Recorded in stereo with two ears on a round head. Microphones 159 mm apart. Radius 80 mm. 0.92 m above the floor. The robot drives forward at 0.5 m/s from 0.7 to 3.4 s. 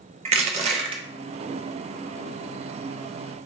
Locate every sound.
0.2 s crushing: 35° right (ahead or behind), 0.5 m; by 1.0 s 30° right (ahead or behind), 0.7 m